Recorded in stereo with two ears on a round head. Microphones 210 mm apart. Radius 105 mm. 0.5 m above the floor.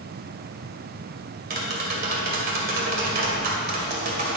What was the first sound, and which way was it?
Tapping, 45° right (ahead or behind).